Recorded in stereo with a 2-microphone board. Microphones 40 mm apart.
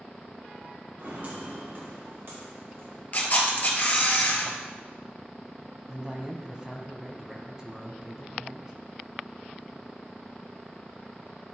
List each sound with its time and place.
1.0 s footsteps: 40° right (ahead or behind), 2 m; by 3.0 s 70° right (ahead or behind), 5 m
3.1 s a camera shutter: 45° left (ahead or behind), 1.2 m
5.9 s a man speaking: 15° right (ahead or behind), 1.0 m